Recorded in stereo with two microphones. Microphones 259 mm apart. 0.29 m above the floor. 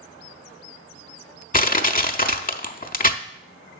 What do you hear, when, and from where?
1.5 s crushing: 35° left (ahead or behind), 0.5 m